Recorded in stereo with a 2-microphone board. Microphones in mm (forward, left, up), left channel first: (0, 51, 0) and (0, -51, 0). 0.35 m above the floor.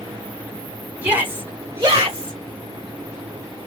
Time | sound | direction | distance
1.0 | a shout | 10° right (ahead or behind) | 1.5 m